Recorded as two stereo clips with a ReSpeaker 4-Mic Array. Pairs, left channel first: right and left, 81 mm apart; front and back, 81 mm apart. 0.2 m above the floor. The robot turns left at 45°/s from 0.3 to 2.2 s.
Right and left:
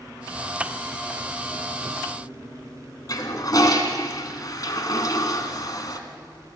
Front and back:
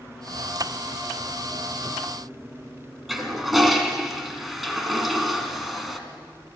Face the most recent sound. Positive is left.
turn(degrees=-95)